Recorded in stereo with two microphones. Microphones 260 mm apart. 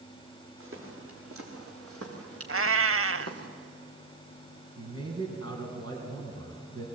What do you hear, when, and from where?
0.6 s footsteps: 55° right (ahead or behind), 6.5 m; by 3.5 s 85° right, 4 m
2.5 s a cat meowing: 65° right (ahead or behind), 0.5 m
4.8 s a man speaking: 75° right (ahead or behind), 4 m